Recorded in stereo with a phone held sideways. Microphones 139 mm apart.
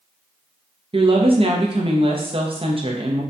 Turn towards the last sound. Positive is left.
turn(degrees=-40)  # may be behind; listen again after turning